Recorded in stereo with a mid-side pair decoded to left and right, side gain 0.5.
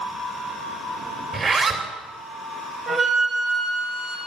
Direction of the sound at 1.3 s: 45° right.